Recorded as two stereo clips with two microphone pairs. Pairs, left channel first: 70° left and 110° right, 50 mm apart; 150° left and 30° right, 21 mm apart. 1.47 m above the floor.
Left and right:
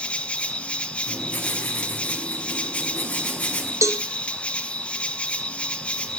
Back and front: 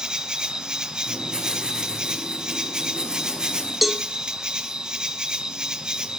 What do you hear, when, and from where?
0.0 s an insect: 5° left, 1.0 m
1.1 s writing: 10° left, 6 m
3.8 s a cowbell: 115° right, 0.9 m